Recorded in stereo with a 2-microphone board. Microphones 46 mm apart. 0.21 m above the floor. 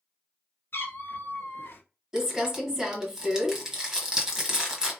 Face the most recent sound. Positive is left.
turn(degrees=-15)  # may be behind; listen again after turning